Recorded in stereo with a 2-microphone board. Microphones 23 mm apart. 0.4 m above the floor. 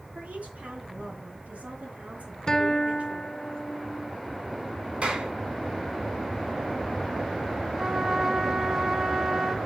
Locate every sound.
0.1 s a woman speaking: 70° right (ahead or behind), 9.5 m; by 3.5 s 60° right (ahead or behind), 8 m
2.5 s a guitar: 30° left (ahead or behind), 1.3 m
5.0 s a clap: 50° right (ahead or behind), 3 m
7.8 s a trumpet: 20° right (ahead or behind), 1.4 m